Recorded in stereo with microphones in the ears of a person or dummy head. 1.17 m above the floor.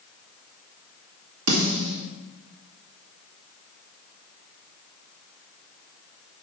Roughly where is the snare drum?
Right.